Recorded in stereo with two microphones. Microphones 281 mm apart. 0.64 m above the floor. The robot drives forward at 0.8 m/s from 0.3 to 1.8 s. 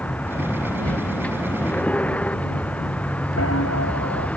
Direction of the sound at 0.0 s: 5° left (ahead or behind).